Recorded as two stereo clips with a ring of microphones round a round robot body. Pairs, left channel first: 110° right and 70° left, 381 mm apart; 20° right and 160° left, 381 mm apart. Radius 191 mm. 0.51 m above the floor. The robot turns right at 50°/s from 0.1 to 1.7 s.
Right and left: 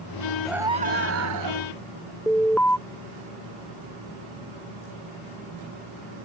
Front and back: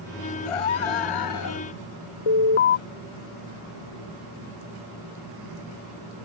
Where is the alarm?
25° right.